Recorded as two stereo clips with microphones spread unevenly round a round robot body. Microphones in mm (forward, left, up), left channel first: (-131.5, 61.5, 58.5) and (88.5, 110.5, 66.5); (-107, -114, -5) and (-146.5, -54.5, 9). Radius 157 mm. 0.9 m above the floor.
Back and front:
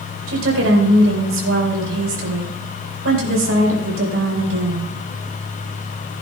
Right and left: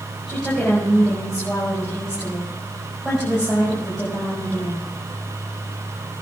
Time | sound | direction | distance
0.3 | a woman speaking | 35° left | 4.5 m